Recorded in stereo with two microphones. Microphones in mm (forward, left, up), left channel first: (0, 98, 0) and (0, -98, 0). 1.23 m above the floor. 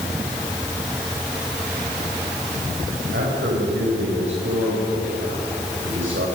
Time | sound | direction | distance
3.1 | a man speaking | 85° right | 6 m